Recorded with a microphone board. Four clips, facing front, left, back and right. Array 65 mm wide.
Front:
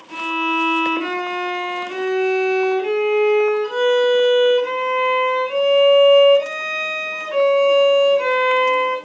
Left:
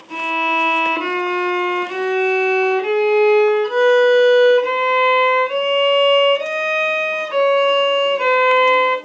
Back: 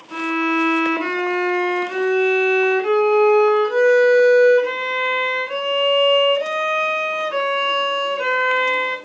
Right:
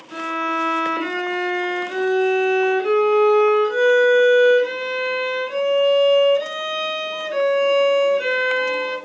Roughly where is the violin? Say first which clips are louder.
Left 4 dB, back 1 dB; left.